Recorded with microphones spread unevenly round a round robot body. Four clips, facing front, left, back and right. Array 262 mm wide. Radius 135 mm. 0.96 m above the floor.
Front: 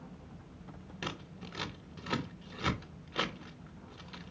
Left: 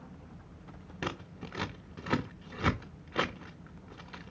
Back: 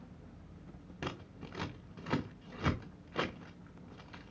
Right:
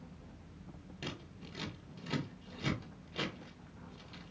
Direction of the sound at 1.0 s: 75° left.